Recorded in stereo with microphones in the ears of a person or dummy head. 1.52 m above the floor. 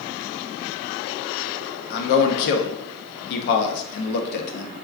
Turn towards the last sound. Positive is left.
turn(degrees=55)  # may be behind; listen again after turning